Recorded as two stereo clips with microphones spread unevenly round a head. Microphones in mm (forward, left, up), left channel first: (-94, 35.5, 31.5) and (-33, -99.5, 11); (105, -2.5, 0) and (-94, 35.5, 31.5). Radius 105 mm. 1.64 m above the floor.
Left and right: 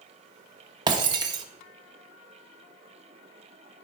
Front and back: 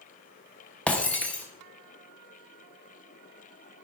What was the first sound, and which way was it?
Breaking glass, 105° right.